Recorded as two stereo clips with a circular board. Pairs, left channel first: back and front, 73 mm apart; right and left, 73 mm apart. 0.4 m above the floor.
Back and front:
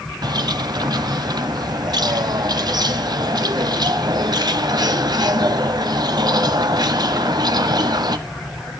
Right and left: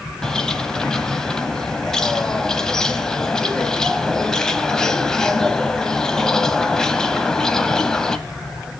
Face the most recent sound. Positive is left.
turn(degrees=-10)